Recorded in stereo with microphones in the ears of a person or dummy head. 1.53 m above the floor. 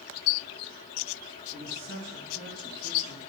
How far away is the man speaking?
About 5 m.